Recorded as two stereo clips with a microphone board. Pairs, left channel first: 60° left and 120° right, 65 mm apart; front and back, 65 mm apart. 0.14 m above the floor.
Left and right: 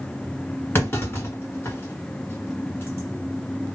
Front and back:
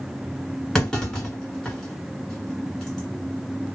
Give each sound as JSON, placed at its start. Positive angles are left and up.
{"t": 0.8, "sound": "a clunk", "azimuth_deg": 75, "distance_m": 1.7}